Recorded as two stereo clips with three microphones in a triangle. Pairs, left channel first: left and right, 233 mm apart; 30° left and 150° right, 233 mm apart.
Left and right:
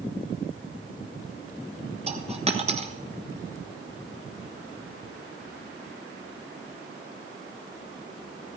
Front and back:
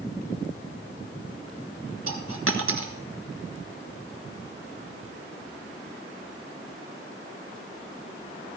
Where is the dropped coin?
155° right, 1.2 m.